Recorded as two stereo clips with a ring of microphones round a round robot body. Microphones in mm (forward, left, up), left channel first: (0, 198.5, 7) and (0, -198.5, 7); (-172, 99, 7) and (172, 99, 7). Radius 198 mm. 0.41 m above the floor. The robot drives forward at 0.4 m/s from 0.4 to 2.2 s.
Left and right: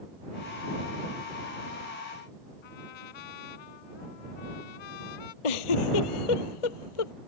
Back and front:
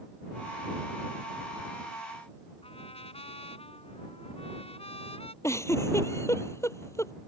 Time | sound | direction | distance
2.6 | a trumpet | 105° left | ?
5.4 | a giggle | 100° left | ?